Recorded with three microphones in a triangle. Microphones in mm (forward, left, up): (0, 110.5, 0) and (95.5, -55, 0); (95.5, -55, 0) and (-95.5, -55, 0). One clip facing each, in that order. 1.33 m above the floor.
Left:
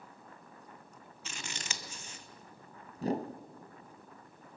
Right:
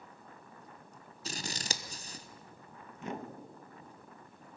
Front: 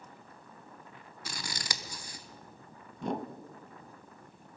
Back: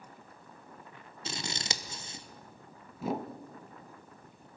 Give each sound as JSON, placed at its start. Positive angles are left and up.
{"t": 1.2, "sound": "scissors", "azimuth_deg": -110, "distance_m": 0.9}
{"t": 3.0, "sound": "a whoosh", "azimuth_deg": 100, "distance_m": 0.6}